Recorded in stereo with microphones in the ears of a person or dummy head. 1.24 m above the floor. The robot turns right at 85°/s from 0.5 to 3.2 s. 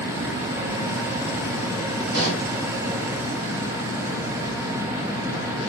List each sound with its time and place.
2.1 s a pop: 70° right, 1.8 m; by 2.5 s 40° right, 1.8 m